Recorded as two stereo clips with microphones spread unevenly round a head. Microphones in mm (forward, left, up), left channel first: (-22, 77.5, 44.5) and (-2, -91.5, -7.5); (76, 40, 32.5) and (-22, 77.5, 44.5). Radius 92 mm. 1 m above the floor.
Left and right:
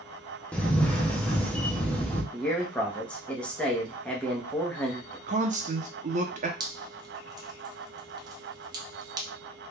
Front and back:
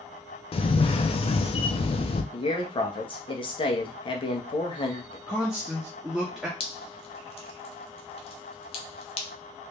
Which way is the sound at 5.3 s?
115° right.